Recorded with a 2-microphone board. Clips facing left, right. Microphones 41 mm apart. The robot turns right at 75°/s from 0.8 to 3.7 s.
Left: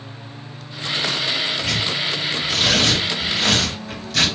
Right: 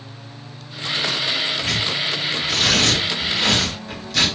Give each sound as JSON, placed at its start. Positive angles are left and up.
{"t": 1.6, "sound": "tearing paper", "side_deg": -20, "distance_m": 2.0}